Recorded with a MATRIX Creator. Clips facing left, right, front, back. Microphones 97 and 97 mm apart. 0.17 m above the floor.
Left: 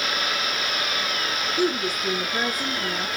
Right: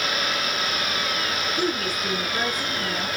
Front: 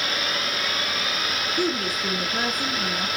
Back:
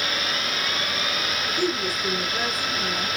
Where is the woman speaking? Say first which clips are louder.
Left 4 dB, even; 15° left, 2.0 m.